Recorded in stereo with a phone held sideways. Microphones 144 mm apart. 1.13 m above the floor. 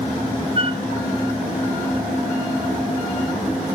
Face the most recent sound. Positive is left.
turn(degrees=-40)  # may be behind; listen again after turning